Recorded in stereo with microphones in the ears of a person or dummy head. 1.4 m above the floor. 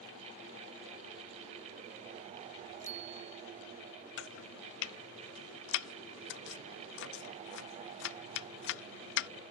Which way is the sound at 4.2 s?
65° left (ahead or behind).